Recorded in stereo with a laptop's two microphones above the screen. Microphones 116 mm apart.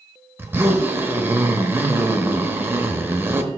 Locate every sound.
0.4 s a zipper: 20° right (ahead or behind), 0.9 m